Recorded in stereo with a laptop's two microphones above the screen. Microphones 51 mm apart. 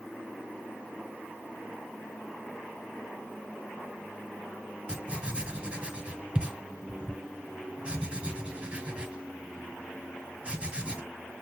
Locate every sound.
4.9 s writing: 25° right (ahead or behind), 1.8 m